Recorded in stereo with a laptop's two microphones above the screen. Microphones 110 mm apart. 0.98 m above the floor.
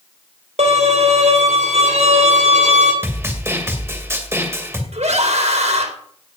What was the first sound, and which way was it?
A violin, 85° right.